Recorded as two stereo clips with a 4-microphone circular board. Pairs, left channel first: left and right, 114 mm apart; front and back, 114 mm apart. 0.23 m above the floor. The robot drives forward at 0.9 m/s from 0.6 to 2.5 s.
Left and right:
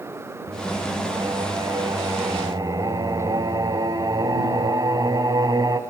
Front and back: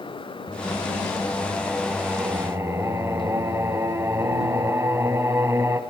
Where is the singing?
40° right, 1.8 m; by 5.8 s 125° right, 1.5 m.